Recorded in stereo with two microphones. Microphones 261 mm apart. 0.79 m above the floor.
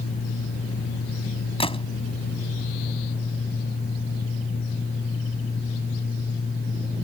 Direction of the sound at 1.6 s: 20° left (ahead or behind).